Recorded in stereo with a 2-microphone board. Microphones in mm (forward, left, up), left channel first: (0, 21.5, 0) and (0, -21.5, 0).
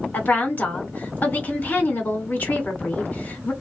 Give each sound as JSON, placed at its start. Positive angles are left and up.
{"t": 0.1, "sound": "a woman speaking", "side_deg": 45, "distance_m": 1.7}